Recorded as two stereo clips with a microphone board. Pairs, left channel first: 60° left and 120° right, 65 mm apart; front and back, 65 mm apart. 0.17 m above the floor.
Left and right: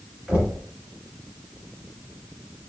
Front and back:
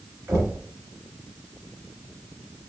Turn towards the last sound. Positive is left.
turn(degrees=180)